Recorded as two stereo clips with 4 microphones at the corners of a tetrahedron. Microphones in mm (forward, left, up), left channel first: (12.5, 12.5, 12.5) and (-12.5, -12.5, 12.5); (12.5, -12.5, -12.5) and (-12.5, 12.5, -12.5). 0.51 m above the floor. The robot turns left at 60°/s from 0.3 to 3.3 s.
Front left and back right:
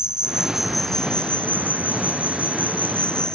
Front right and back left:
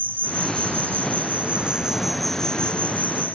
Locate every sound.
0.0 s an insect: 160° left; by 3.4 s 20° right